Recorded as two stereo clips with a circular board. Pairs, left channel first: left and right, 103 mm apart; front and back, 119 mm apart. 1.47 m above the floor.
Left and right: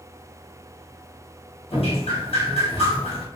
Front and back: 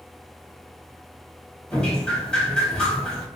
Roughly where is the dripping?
Left.